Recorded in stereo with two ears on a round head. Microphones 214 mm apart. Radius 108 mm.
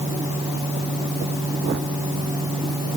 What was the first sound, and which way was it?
Only background noise.